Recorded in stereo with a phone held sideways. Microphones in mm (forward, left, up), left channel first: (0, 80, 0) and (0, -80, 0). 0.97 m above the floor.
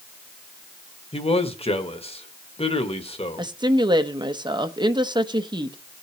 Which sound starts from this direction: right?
A woman speaking, at 3.4 s.